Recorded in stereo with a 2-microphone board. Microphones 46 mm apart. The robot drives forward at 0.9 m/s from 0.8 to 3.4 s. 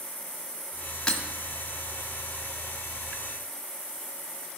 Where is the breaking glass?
15° left (ahead or behind), 1.4 m.